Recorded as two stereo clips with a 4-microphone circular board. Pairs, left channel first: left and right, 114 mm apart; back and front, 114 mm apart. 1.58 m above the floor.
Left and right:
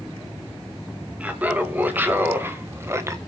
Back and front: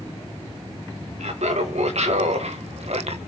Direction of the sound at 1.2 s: 15° right.